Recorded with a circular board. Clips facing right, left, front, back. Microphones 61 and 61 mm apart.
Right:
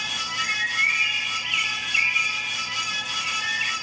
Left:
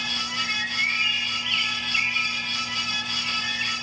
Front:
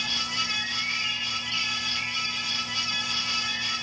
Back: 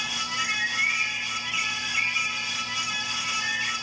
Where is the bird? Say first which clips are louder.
Right 4 dB, back 8 dB; 155° right, 3 m.